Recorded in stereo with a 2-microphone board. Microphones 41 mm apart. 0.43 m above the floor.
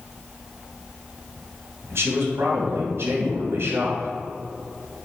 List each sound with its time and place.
1.9 s a man speaking: 70° right (ahead or behind), 2.5 m